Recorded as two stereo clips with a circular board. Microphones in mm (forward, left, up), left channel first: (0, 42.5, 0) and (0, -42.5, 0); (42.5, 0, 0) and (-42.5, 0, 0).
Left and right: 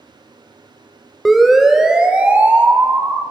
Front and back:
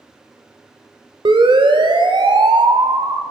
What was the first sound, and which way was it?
A siren, straight behind.